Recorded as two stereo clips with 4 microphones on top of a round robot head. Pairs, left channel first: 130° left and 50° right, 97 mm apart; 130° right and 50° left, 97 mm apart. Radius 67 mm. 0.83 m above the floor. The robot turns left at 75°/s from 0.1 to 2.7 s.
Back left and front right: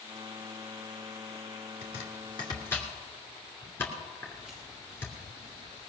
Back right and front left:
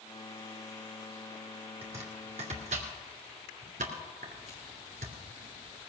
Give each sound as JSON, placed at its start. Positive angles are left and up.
{"t": 1.8, "sound": "chopping", "azimuth_deg": 125, "distance_m": 2.5}
{"t": 4.2, "sound": "footsteps", "azimuth_deg": -140, "distance_m": 6.5}